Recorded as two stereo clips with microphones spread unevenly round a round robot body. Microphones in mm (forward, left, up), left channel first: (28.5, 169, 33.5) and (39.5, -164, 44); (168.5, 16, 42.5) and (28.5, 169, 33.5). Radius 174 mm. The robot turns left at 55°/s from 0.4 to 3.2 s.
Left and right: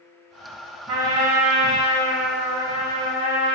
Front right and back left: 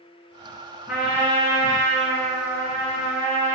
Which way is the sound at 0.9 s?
70° right.